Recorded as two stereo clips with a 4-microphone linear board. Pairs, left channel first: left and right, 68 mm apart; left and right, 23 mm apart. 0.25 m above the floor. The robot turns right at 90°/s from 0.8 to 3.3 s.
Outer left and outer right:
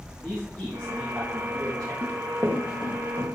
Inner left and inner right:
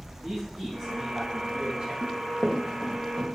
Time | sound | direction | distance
0.2 | a man speaking | 175° left | 3.5 m
2.0 | running footsteps | 80° right | 1.6 m